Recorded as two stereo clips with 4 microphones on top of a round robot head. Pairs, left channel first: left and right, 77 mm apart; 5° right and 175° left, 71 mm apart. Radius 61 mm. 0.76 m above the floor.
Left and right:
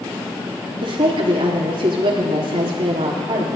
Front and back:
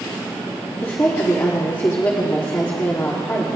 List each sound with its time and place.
0.8 s a woman speaking: 75° right, 1.3 m